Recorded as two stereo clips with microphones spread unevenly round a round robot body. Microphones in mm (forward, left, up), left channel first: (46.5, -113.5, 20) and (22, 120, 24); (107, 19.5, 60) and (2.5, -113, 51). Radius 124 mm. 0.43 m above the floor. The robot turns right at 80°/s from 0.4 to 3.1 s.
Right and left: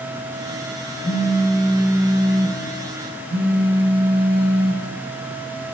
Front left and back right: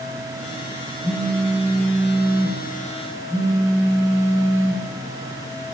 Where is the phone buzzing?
50° right, 0.6 m; by 4.8 s 115° left, 0.6 m.